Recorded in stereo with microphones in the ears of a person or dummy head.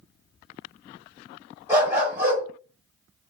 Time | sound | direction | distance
1.7 | a dog barking | 15° right (ahead or behind) | 2 m